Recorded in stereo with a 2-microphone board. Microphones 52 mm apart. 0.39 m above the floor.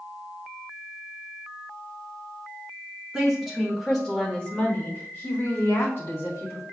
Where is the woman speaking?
10° right (ahead or behind), 0.9 m; by 6.6 s 50° left (ahead or behind), 1.8 m.